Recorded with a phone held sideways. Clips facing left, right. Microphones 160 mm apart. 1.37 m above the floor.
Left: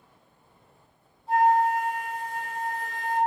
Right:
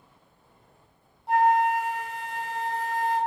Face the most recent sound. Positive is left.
turn(degrees=-80)